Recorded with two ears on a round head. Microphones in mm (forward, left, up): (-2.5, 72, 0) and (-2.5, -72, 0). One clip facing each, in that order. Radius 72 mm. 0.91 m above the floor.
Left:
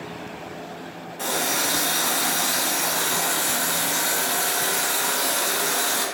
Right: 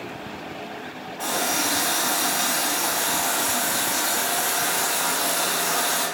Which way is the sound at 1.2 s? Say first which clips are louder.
Right 1 dB; 70° left (ahead or behind).